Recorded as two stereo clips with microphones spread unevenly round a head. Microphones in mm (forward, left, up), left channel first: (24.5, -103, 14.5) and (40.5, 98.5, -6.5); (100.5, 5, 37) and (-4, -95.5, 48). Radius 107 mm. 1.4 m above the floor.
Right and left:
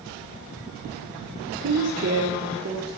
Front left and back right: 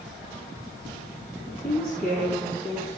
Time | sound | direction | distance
1.6 | a woman speaking | 125° left | 1.2 m